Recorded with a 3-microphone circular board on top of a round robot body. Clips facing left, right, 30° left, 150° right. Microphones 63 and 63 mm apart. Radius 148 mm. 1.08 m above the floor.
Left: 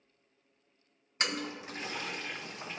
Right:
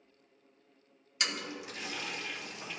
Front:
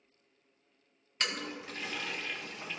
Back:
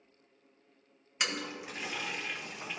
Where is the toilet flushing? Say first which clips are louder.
Left 2 dB, back 1 dB; 130° left, 1.1 m.